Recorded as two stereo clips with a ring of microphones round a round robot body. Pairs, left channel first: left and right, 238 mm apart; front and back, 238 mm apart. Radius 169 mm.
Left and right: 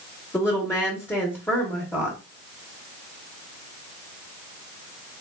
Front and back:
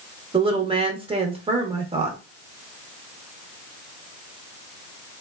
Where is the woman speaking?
155° left, 0.8 m.